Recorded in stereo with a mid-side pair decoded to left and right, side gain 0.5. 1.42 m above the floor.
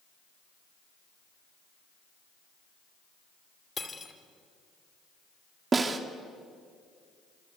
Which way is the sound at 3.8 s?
30° left.